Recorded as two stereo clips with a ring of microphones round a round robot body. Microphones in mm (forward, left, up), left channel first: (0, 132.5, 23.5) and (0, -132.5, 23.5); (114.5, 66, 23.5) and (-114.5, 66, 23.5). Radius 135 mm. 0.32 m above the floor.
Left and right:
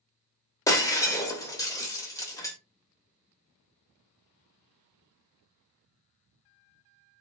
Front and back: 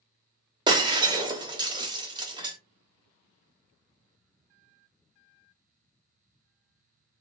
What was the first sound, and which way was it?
Breaking glass, 145° left.